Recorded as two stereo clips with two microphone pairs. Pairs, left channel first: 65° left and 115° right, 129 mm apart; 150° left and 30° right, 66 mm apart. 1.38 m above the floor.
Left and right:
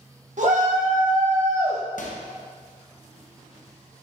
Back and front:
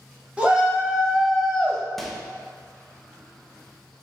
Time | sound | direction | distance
0.4 | a shout | 100° right | 1.6 m
2.0 | a microwave | 60° left | 0.8 m